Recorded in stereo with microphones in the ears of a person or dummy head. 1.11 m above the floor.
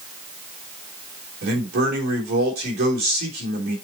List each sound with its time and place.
1.4 s a man speaking: 55° right (ahead or behind), 3 m